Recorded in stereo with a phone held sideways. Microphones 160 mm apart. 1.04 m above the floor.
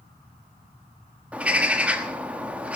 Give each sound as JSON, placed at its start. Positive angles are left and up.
{"t": 1.3, "sound": "a bird", "side_deg": -10, "distance_m": 1.3}